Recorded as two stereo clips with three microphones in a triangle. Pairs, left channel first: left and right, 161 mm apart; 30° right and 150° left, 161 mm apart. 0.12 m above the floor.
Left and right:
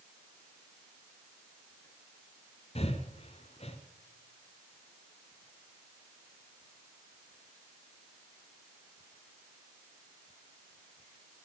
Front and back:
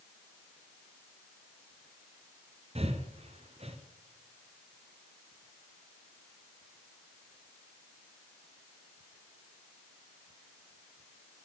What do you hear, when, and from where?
2.8 s breathing: 120° left, 0.7 m